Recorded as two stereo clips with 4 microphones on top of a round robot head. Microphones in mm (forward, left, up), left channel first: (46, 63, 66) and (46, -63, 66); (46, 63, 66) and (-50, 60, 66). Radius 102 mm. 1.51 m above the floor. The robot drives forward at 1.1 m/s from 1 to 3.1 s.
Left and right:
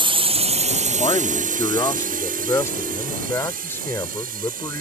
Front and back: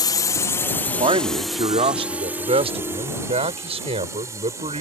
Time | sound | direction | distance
0.0 | a drone | 45° right | ?
1.0 | a man speaking | 155° left | ?